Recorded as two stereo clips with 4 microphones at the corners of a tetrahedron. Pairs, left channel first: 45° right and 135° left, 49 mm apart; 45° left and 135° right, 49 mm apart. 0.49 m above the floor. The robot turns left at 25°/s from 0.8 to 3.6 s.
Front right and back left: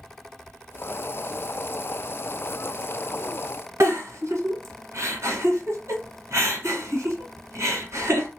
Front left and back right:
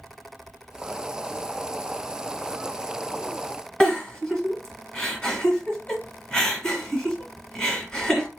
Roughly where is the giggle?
Behind left.